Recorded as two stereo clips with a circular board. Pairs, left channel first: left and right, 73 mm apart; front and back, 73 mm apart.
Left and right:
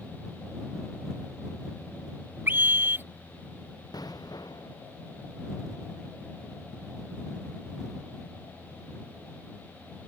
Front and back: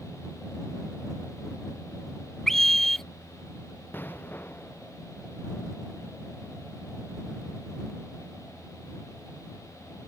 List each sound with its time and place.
2.5 s a scream: 80° right
3.9 s an explosion: 65° left